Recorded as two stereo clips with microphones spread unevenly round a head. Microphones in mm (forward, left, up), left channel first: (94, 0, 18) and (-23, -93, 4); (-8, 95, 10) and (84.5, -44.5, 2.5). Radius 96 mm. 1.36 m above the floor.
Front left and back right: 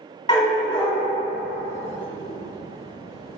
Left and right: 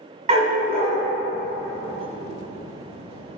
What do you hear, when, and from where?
0.3 s a dog barking: 10° right, 1.8 m